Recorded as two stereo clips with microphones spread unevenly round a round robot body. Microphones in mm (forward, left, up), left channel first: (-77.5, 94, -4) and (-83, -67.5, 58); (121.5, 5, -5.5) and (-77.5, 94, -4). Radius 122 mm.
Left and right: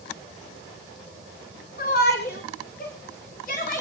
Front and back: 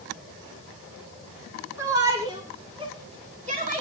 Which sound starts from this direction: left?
A shout, at 1.8 s.